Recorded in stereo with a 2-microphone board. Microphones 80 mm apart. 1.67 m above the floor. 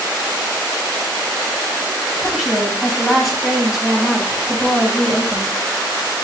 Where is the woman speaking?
5° right (ahead or behind), 6 m.